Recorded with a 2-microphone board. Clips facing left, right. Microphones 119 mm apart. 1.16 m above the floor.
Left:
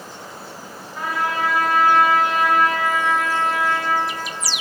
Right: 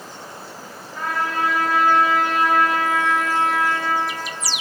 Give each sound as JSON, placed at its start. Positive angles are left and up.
{"t": 0.9, "sound": "a trumpet", "side_deg": 10, "distance_m": 2.0}